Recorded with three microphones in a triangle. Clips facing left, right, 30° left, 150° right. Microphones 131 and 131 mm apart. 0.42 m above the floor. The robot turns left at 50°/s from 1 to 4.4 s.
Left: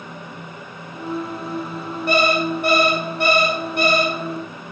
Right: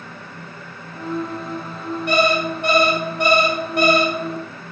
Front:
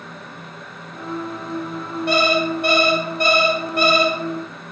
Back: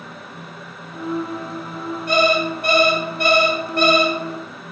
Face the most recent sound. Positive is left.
turn(degrees=-80)